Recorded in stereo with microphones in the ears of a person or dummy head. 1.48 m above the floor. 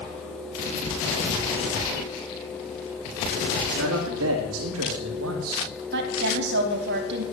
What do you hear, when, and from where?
3.6 s a man speaking: 75° right (ahead or behind), 3 m
5.9 s a woman speaking: 65° right (ahead or behind), 3 m